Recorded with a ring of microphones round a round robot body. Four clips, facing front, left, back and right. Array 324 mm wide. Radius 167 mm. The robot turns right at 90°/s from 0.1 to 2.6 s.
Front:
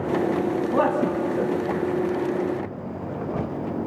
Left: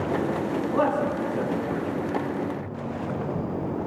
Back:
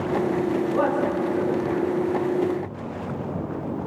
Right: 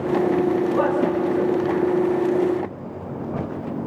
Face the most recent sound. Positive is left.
turn(degrees=160)